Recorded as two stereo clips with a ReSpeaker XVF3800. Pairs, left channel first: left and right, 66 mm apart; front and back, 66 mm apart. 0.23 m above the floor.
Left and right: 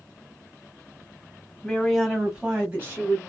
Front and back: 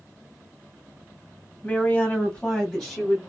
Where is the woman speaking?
25° left, 1.5 m; by 3.2 s 85° right, 1.7 m.